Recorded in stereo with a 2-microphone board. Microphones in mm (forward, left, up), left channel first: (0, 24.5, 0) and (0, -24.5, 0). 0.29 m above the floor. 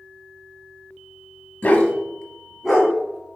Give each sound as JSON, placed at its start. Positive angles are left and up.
{"t": 1.6, "sound": "a dog barking", "side_deg": 30, "distance_m": 0.8}